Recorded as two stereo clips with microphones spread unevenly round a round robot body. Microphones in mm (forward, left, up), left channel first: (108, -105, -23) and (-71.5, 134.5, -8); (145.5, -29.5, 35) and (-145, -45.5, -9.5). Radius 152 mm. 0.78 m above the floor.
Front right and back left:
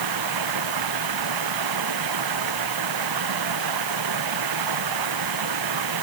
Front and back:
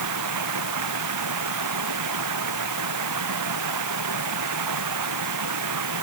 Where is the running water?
150° left.